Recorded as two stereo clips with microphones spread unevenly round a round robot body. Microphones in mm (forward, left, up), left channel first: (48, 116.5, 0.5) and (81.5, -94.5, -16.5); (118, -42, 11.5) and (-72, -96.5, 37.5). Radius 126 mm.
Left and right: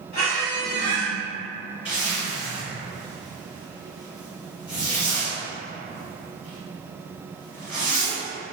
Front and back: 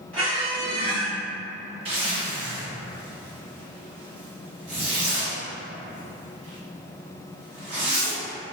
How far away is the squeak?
About 1.0 m.